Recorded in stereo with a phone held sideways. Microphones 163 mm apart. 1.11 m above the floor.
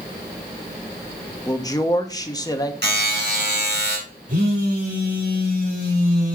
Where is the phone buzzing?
50° right (ahead or behind), 5 m.